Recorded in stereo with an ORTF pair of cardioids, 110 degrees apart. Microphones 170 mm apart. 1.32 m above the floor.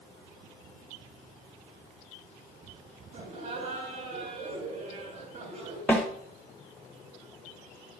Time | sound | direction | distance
3.1 | laughter | 45° right | 6.5 m
5.9 | a snare drum | 10° left | 3 m